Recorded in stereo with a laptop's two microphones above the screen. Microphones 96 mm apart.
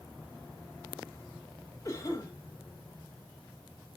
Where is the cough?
30° left (ahead or behind), 1.2 m.